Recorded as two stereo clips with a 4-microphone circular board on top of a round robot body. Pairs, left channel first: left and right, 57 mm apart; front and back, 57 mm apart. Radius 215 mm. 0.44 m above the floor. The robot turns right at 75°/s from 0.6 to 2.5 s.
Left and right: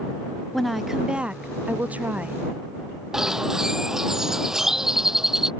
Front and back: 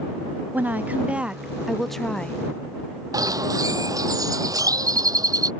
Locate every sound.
0.5 s a woman speaking: straight behind; by 2.4 s 45° right
3.1 s a bird: 170° right